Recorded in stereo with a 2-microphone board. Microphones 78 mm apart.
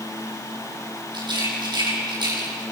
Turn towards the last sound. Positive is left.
turn(degrees=-75)  # may be behind; listen again after turning